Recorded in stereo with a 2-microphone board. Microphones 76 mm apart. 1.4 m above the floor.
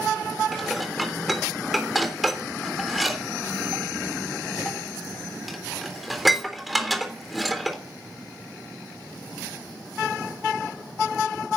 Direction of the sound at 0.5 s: Centre (ahead or behind).